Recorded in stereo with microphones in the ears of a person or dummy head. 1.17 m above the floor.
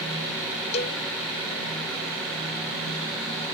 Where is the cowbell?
40° left (ahead or behind).